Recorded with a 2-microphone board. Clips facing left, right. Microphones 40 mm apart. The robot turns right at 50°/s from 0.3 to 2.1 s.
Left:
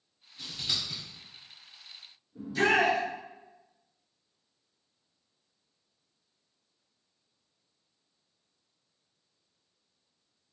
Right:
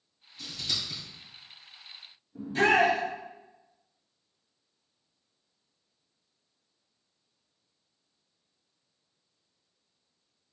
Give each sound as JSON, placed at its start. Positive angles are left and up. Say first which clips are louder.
{"t": 0.4, "sound": "scissors", "louder": "even", "side_deg": 35, "distance_m": 2.0}
{"t": 2.4, "sound": "a shout", "louder": "right 2 dB", "side_deg": -45, "distance_m": 2.0}